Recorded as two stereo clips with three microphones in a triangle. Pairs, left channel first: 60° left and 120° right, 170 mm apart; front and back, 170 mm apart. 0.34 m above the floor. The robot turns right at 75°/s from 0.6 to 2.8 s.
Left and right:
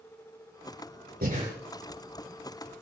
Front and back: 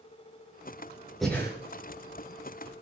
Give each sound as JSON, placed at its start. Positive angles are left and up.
{"t": 1.2, "sound": "breathing", "azimuth_deg": -90, "distance_m": 5.0}